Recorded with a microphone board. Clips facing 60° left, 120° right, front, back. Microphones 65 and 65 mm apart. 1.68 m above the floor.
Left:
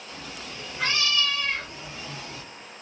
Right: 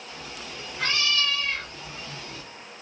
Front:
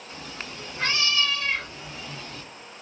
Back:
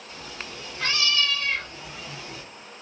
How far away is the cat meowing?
About 1.4 m.